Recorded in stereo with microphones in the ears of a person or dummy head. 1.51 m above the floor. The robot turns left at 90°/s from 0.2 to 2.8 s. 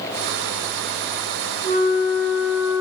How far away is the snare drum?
I don't hear a snare drum.